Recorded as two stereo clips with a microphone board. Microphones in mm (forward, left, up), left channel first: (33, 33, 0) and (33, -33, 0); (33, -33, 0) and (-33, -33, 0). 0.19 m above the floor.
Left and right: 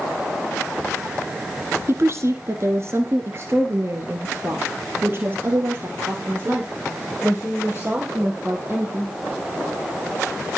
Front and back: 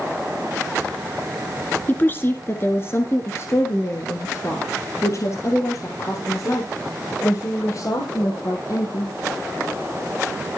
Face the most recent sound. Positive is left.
turn(degrees=-30)